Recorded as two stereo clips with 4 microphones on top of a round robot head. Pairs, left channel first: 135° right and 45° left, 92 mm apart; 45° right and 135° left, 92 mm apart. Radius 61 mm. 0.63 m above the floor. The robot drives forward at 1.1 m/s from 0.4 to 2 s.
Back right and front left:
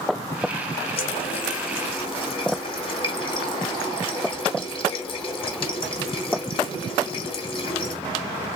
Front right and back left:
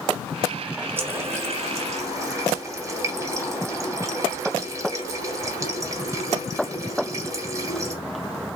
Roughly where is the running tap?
Behind.